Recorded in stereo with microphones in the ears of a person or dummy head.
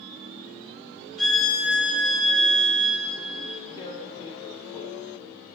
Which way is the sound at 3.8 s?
25° left (ahead or behind).